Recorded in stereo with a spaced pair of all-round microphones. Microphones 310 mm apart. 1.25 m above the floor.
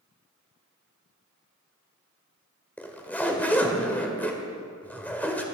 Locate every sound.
2.8 s a zipper: 5° left (ahead or behind), 1.6 m